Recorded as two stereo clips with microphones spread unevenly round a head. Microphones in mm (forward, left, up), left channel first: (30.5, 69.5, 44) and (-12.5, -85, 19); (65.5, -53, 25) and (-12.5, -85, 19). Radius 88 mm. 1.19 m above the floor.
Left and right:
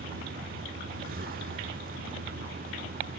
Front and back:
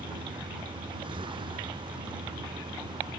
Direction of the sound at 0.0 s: 140° right.